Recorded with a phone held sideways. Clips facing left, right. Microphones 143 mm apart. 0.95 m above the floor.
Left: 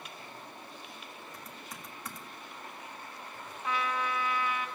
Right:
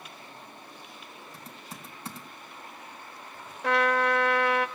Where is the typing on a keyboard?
30° right (ahead or behind), 2.5 m.